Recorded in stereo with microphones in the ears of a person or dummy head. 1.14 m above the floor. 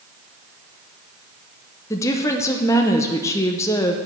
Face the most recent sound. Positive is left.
turn(degrees=15)  # may be behind; listen again after turning